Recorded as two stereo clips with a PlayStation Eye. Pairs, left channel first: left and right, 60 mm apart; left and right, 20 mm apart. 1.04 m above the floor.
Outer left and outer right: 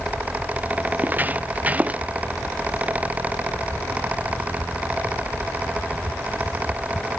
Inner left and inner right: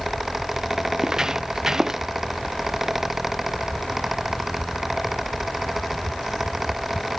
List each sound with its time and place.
1.0 s footsteps: 30° right (ahead or behind); by 2.0 s 25° right (ahead or behind)